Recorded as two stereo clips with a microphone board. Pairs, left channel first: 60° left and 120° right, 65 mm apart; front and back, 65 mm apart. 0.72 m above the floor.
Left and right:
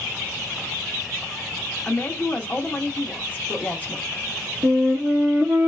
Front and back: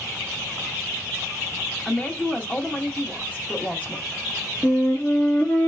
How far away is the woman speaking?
About 0.7 m.